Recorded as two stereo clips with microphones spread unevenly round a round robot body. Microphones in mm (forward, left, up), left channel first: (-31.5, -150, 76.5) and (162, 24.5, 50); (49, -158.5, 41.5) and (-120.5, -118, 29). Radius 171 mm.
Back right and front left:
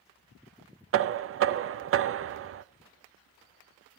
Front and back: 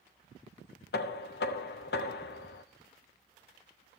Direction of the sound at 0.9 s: 15° left.